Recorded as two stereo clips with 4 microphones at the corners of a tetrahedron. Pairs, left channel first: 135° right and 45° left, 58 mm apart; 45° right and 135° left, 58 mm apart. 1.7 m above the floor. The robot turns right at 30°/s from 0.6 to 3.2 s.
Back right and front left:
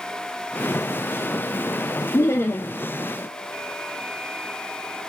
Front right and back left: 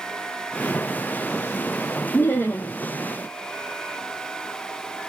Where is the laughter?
100° right, 0.5 m; by 2.7 s 85° right, 0.5 m.